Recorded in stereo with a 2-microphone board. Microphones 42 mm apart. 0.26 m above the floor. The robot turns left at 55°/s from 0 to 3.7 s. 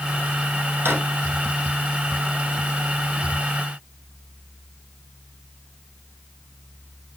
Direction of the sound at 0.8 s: 70° right (ahead or behind).